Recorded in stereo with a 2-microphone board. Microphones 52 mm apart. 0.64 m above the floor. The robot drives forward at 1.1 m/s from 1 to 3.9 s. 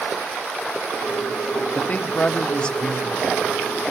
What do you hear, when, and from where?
1.8 s a woman speaking: 35° left (ahead or behind), 1.0 m; by 3.6 s 10° left (ahead or behind), 2.5 m